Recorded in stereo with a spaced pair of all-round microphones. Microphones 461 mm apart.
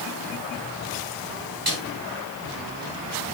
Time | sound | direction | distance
1.7 | a snare drum | 50° right (ahead or behind) | 6.5 m